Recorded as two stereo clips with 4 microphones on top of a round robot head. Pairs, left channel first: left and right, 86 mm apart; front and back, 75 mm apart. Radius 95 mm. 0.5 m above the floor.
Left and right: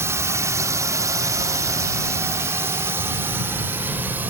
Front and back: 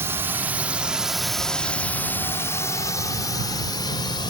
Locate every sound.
0.0 s a drone: 135° right; by 4.3 s 20° right